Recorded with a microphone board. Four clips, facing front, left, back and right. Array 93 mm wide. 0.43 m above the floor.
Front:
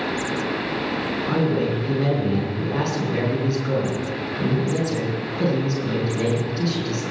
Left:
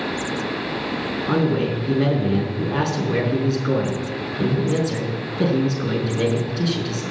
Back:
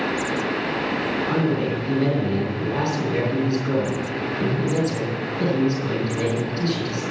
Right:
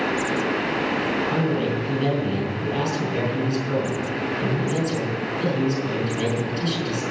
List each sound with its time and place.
1.3 s a man speaking: 85° left, 5.5 m